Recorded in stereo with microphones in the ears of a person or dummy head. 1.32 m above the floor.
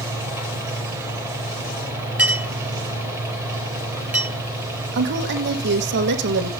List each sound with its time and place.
0.0 s a fan: 15° right (ahead or behind), 3.5 m
2.2 s a clink: 5° right (ahead or behind), 2.0 m
4.9 s a woman speaking: 60° right (ahead or behind), 1.4 m